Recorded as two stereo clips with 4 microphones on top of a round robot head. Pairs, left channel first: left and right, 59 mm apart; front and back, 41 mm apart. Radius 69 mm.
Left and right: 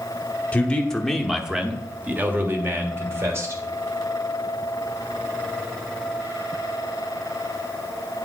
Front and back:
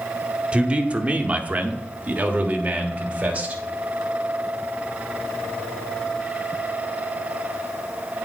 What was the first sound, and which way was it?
A man speaking, 140° left.